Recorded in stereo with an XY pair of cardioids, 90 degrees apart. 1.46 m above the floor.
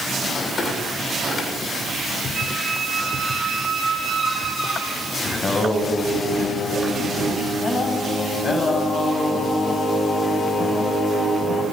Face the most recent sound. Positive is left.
turn(degrees=45)